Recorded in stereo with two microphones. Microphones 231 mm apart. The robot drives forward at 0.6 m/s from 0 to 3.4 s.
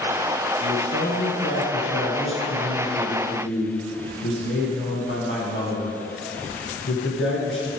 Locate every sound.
0.6 s a man speaking: 60° left (ahead or behind), 3 m; by 7.7 s 55° left (ahead or behind), 3 m